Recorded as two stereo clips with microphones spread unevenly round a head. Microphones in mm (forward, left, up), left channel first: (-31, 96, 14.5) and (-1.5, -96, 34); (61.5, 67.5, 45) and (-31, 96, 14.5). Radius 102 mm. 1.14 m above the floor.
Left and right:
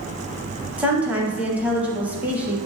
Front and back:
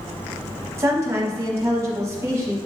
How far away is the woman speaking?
About 0.7 m.